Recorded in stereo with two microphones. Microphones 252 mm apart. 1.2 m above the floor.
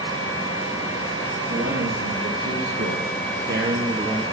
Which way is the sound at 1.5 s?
70° right (ahead or behind).